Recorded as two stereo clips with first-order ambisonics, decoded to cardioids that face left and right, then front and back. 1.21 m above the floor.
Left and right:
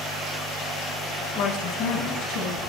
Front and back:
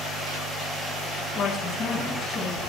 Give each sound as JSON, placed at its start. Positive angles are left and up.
{"t": 1.4, "sound": "a woman speaking", "azimuth_deg": 60, "distance_m": 0.7}